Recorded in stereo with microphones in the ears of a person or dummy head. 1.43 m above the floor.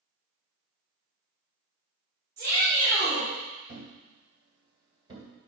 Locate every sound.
2.4 s a shout: 20° right (ahead or behind), 3.5 m
3.7 s a thud: 25° right (ahead or behind), 2.0 m